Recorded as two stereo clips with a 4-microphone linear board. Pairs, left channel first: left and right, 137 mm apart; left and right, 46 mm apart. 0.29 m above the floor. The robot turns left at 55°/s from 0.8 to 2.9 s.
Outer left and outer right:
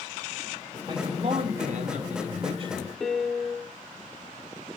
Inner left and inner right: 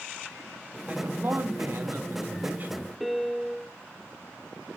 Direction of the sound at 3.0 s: Centre (ahead or behind).